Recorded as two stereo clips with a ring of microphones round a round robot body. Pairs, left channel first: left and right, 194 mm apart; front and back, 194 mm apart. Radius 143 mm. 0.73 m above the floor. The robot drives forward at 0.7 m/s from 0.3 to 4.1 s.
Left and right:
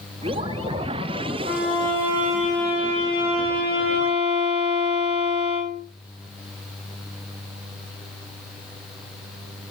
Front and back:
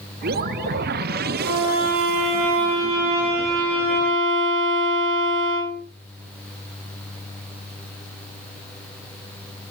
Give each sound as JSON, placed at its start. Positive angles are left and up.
{"t": 1.4, "sound": "a violin", "azimuth_deg": -155, "distance_m": 5.0}